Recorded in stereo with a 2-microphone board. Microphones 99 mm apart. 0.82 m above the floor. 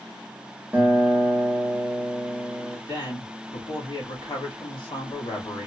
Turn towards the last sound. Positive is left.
turn(degrees=50)  # may be behind; listen again after turning